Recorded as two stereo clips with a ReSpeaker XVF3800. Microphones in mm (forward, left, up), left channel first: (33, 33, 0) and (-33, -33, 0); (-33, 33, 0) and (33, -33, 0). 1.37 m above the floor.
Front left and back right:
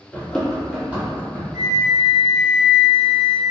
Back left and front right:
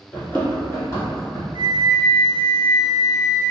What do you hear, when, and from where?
0.1 s running footsteps: 85° left, 1.4 m; by 1.4 s 175° left, 2 m
1.5 s a flute: 165° left, 0.8 m